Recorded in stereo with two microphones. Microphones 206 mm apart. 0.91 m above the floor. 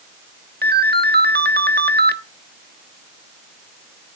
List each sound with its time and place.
0.6 s a ringtone: 55° right (ahead or behind), 1.0 m